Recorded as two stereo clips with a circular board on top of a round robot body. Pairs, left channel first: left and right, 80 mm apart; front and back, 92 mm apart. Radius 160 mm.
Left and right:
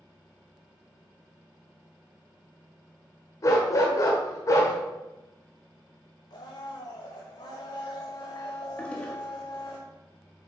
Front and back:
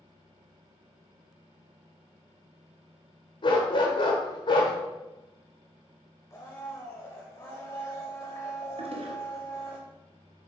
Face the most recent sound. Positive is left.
turn(degrees=165)